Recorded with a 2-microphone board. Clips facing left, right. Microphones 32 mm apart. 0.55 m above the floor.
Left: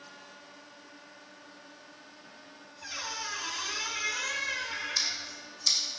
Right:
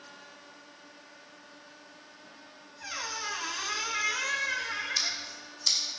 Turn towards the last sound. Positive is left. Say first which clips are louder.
# even
turn(degrees=-15)  # may be behind; listen again after turning